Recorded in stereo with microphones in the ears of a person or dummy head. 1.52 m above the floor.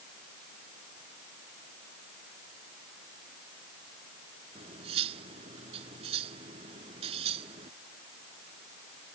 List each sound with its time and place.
4.5 s cutlery clinking: 35° right (ahead or behind)